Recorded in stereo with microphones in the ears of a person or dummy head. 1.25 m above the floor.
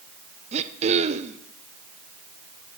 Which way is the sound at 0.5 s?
25° right (ahead or behind).